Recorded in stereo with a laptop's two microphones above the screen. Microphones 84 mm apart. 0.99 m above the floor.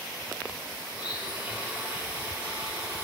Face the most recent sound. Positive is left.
turn(degrees=-20)  # may be behind; listen again after turning